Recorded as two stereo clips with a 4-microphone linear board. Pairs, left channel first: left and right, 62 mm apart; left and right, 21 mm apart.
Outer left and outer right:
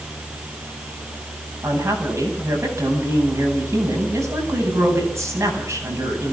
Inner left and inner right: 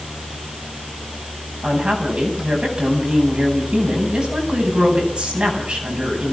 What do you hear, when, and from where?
1.6 s a woman speaking: 50° right (ahead or behind), 8.5 m